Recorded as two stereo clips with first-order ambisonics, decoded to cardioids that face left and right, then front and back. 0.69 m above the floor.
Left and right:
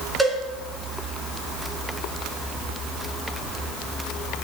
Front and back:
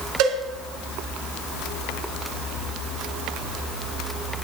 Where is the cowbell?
Straight behind, 2 m.